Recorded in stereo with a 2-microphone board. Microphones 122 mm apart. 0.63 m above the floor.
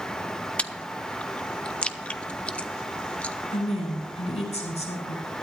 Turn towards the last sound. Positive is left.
turn(degrees=65)  # may be behind; listen again after turning